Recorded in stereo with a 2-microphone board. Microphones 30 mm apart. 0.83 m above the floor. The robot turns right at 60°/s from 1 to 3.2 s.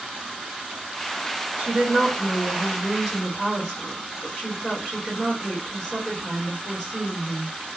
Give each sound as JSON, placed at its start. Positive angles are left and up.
{"t": 1.6, "sound": "a woman speaking", "azimuth_deg": -55, "distance_m": 1.6}